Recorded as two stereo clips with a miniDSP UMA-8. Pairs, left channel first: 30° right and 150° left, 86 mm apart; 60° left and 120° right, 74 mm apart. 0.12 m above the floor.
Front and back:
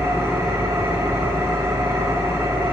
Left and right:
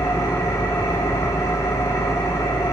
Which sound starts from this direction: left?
An engine running, at 0.0 s.